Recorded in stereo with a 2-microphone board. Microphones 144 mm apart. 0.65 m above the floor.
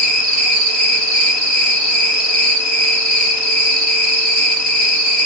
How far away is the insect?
About 1.1 m.